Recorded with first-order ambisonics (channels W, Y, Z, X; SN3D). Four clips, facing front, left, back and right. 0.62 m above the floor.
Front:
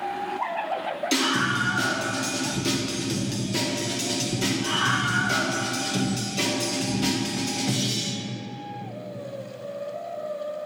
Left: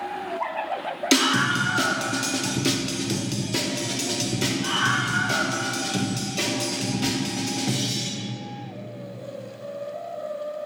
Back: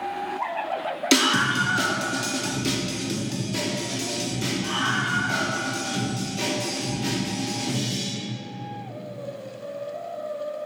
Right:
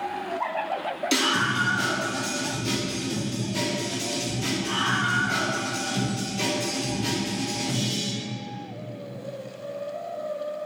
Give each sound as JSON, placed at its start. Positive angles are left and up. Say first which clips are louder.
{"t": 1.1, "sound": "a scream", "louder": "left 3 dB, back 4 dB", "azimuth_deg": 140, "distance_m": 1.0}